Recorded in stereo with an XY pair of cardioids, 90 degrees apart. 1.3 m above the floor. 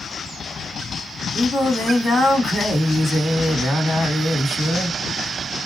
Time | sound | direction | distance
1.3 | singing | 35° left | 2 m